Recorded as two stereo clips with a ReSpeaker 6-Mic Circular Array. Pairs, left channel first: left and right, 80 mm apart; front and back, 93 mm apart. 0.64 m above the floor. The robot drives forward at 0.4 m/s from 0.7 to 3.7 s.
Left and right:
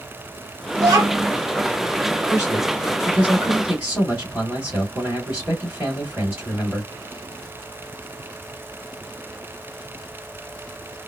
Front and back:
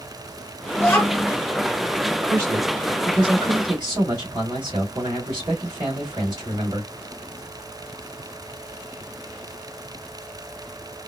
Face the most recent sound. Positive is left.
turn(degrees=-150)